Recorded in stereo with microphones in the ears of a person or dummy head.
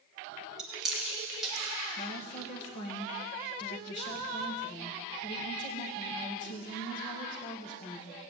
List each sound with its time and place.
0.6 s chewing: 5° right (ahead or behind), 1.6 m
2.0 s a woman speaking: 35° left (ahead or behind), 1.9 m